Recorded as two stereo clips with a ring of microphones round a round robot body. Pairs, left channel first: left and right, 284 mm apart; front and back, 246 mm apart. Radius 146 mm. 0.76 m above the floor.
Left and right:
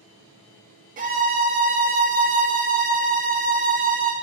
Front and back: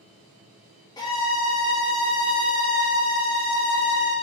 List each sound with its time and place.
1.0 s a violin: 60° right, 0.6 m